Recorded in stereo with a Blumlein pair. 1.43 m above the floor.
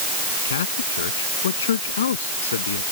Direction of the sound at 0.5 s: 65° left.